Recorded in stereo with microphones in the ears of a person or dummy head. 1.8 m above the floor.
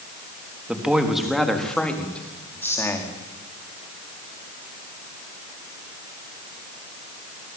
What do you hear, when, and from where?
0.7 s a man speaking: 10° right (ahead or behind), 3.5 m; by 3.1 s 10° left (ahead or behind), 4.5 m